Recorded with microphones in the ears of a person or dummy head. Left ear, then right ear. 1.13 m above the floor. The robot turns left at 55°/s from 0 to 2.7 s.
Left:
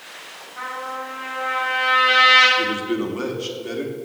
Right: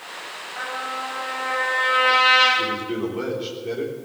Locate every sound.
0.6 s a trumpet: 135° right, 6.5 m; by 2.5 s 120° left, 6.5 m
2.6 s a man speaking: 65° left (ahead or behind), 3.5 m; by 4.0 s 75° left (ahead or behind), 3.5 m